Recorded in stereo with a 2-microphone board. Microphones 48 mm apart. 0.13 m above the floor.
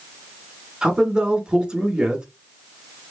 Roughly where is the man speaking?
Centre.